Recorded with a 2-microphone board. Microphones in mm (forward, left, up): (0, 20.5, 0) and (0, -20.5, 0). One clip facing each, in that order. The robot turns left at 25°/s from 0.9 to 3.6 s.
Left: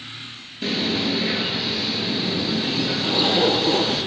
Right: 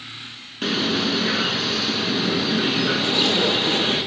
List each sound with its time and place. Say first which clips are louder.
0.6 s a bird: right 1 dB; 65° right, 4 m; by 4.0 s 130° right, 4 m
3.0 s a zipper: left 4 dB; 10° left (ahead or behind), 2 m; by 4.0 s 25° left (ahead or behind), 2 m